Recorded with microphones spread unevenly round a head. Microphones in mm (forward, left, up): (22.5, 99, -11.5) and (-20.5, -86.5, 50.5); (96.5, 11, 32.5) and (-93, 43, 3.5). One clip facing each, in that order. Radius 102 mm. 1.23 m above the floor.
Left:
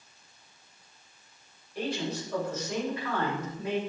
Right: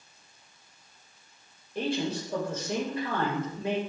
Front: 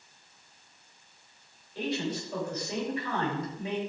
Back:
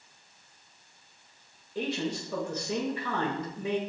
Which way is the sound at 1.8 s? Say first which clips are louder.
Right 3 dB, even; 170° right.